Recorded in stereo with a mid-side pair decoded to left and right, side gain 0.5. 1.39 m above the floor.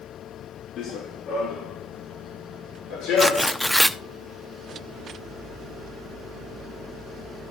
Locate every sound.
0.8 s running footsteps: 65° left, 4.5 m; by 3.6 s 75° left, 7 m
3.2 s tearing paper: straight ahead, 0.7 m